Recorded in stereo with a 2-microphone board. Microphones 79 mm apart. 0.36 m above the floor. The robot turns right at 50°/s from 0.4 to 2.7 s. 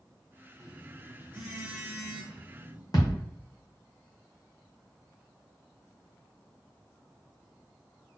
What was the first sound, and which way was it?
A phone buzzing, 10° right (ahead or behind).